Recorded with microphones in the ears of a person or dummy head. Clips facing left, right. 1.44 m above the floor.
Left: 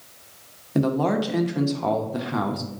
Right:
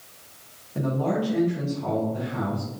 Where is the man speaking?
70° left (ahead or behind), 0.8 m.